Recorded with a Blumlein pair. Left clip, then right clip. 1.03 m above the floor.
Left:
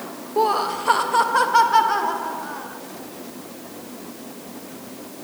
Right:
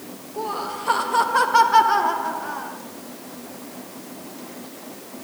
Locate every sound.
0.4 s laughter: 30° left, 0.7 m; by 2.8 s 10° right, 2.5 m